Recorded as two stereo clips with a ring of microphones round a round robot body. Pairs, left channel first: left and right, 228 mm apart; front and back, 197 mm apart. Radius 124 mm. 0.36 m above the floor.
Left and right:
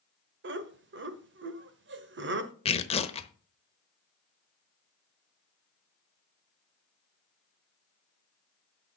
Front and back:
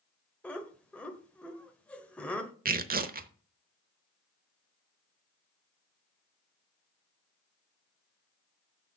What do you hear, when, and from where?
0.4 s laughter: 80° right, 1.2 m
2.6 s tearing paper: 150° left, 0.9 m